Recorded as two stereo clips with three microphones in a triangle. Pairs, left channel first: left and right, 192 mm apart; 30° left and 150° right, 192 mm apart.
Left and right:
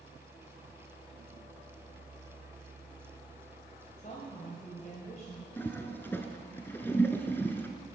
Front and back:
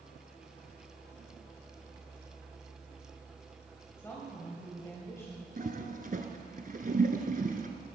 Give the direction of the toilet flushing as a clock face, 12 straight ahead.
6 o'clock.